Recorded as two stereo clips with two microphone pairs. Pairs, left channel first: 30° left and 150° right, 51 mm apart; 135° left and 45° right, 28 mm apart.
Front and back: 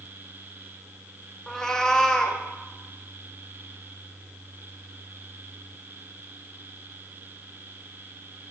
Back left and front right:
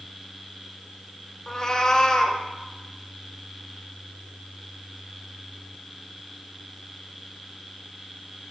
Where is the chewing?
No chewing in this recording.